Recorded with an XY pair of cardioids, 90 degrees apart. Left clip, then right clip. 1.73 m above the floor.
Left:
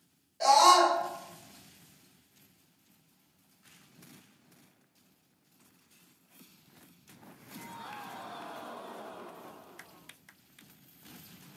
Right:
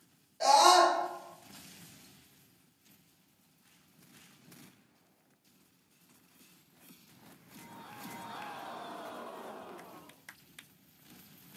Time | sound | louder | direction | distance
0.4 | a scream | left 1 dB | 5° left | 1.0 m